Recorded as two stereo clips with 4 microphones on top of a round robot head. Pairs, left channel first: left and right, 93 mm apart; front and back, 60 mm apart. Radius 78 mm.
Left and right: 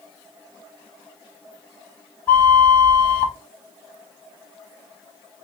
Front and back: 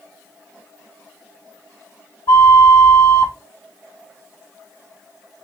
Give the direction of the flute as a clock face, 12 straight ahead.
11 o'clock.